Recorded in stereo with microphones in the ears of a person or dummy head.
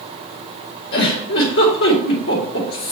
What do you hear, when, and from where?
0.9 s a giggle: 60° left (ahead or behind), 3 m